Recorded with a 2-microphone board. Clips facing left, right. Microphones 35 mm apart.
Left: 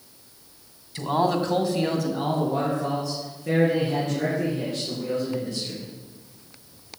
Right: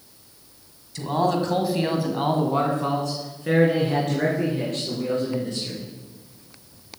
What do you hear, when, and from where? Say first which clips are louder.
0.9 s a man speaking: even; 20° left (ahead or behind), 2.0 m; by 5.9 s 80° right, 6.5 m